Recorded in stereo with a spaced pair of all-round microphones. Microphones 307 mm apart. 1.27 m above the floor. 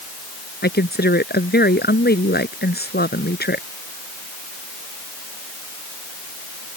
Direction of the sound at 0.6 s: 30° left (ahead or behind).